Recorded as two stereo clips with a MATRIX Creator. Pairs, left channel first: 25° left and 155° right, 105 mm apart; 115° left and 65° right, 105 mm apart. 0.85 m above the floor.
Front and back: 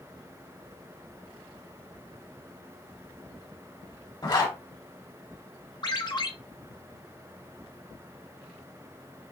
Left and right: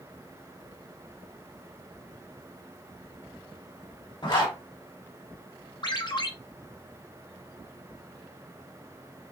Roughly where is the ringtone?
Left.